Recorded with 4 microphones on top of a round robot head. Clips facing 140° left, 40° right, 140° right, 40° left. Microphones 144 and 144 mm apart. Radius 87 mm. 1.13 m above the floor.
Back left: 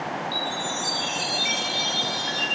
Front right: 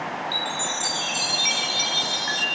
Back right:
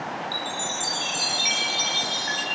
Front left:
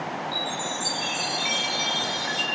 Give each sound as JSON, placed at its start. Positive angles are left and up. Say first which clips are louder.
{"t": 0.3, "sound": "a chime", "louder": "back left 1 dB, front left 1 dB", "azimuth_deg": -85, "distance_m": 4.5}